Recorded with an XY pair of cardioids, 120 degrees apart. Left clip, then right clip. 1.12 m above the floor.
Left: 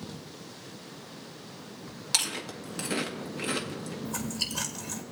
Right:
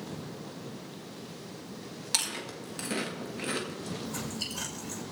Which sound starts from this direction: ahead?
Chewing, at 2.1 s.